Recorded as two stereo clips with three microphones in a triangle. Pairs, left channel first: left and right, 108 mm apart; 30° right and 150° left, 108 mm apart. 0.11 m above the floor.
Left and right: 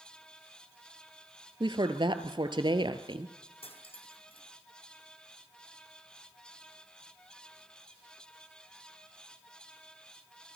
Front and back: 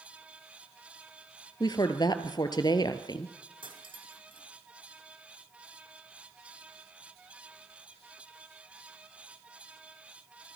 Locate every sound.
1.6 s a woman speaking: 65° right, 1.8 m
3.6 s cutlery clinking: 115° left, 3 m